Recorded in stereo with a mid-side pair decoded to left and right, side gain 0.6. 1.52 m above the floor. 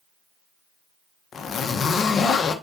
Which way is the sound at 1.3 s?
35° left.